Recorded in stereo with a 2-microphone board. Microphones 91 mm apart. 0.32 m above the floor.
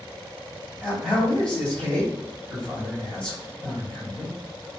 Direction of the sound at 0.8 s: 10° left (ahead or behind).